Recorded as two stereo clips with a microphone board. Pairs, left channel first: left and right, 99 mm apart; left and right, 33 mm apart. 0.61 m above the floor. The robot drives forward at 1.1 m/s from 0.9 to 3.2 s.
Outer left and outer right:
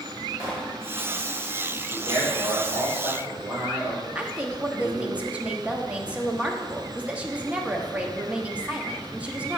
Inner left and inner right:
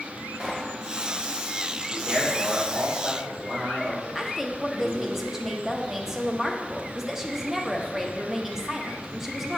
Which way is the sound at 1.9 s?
40° right (ahead or behind).